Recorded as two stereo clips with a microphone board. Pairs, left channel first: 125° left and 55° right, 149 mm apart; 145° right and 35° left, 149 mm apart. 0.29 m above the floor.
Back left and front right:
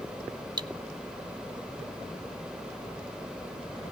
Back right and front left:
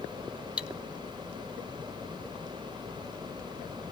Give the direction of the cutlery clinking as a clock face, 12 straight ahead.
1 o'clock.